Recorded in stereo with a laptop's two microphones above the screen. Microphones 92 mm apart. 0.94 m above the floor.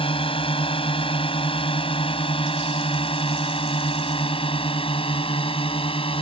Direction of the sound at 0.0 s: 80° left.